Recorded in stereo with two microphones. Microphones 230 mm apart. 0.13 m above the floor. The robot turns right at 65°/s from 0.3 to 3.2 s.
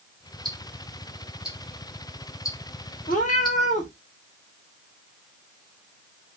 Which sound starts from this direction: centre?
Ticking, at 0.5 s.